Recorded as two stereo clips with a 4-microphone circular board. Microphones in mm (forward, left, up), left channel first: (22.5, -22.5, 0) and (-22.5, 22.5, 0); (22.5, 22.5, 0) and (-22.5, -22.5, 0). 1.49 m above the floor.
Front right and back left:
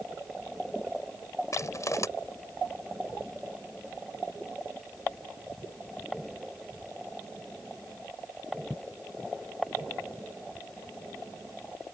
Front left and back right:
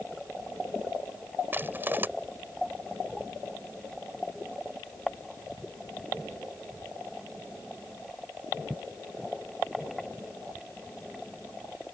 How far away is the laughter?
I don't hear laughter.